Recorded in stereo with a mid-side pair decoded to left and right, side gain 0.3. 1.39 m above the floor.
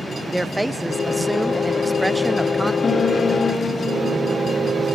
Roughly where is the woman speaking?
Ahead.